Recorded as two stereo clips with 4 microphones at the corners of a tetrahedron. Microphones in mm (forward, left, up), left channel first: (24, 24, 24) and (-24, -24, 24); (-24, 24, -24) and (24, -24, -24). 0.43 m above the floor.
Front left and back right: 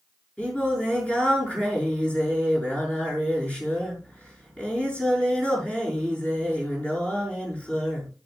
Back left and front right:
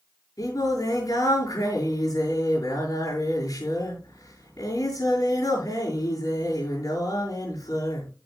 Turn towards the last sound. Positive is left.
turn(degrees=115)